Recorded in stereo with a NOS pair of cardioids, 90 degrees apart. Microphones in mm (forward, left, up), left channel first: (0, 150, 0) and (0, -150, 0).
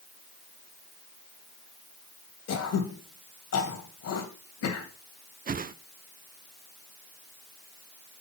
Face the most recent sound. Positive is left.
turn(degrees=-30)